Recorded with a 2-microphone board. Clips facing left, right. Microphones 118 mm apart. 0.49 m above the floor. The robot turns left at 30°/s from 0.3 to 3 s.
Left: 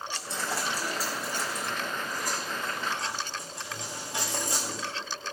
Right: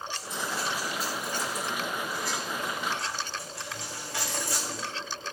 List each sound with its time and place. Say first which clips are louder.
0.1 s a dropped coin: left 1 dB; 75° left (ahead or behind), 2 m; by 4.9 s 20° left (ahead or behind), 2 m